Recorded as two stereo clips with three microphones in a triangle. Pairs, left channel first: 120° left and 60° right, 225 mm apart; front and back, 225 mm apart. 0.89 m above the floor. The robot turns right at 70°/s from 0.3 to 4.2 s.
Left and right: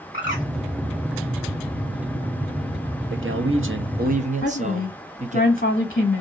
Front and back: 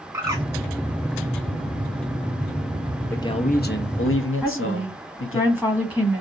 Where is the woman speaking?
75° left, 1.1 m.